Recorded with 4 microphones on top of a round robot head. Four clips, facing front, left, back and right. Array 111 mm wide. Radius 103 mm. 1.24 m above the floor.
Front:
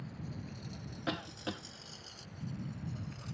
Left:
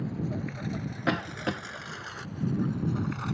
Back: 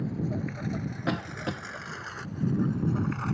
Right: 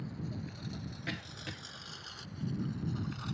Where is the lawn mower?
145° left; by 3.3 s 150° left.